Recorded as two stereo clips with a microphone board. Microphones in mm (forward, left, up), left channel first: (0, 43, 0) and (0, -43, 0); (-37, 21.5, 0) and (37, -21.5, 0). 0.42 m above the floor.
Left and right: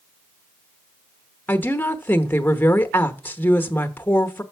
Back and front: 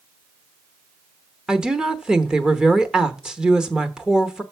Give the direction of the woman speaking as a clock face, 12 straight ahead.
10 o'clock.